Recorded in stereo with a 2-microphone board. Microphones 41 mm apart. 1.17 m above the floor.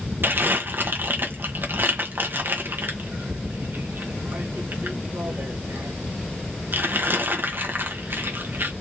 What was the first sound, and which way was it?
Crumpling, 60° right (ahead or behind).